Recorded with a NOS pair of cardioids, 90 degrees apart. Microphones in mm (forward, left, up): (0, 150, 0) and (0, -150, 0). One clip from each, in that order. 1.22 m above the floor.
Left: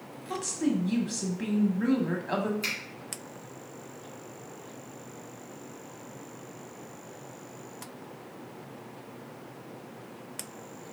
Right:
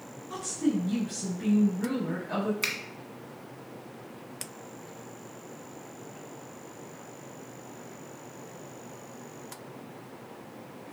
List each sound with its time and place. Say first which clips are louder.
0.3 s a woman speaking: even; 45° left, 1.3 m
2.6 s a finger snap: right 2 dB; 60° right, 1.6 m